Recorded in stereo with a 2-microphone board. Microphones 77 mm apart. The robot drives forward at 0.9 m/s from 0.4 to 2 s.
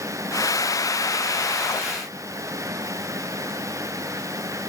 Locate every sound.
Only background noise.